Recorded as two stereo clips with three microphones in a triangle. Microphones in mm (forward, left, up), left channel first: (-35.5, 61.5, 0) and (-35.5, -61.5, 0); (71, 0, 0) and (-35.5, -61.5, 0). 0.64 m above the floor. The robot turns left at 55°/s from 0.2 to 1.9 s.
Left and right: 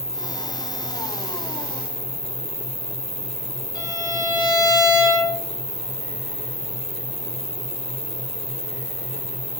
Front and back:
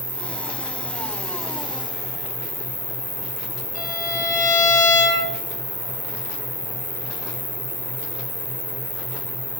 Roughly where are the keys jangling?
No keys jangling in this recording.